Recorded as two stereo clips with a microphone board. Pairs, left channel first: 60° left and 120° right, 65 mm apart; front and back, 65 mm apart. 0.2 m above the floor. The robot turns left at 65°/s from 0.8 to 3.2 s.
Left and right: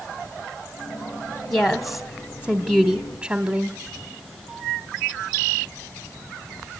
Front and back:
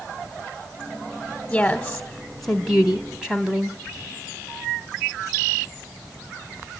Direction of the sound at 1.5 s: 10° right.